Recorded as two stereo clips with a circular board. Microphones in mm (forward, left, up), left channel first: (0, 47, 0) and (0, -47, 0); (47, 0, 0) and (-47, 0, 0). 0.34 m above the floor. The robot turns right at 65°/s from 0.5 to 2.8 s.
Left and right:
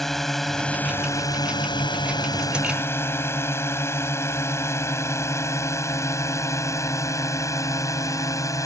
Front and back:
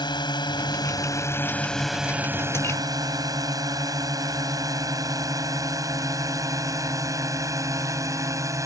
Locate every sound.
0.0 s a drone: 5° left; by 8.7 s 135° left